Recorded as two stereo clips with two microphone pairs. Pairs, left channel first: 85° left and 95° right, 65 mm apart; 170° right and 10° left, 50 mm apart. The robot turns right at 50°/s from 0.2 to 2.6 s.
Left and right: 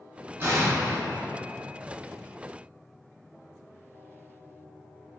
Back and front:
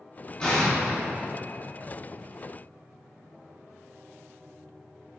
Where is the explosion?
110° right, 0.7 m; by 1.3 s 65° right, 0.7 m.